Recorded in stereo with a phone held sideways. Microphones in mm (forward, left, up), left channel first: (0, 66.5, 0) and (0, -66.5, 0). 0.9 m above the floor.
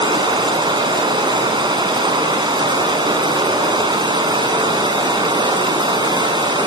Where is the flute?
No flute in this recording.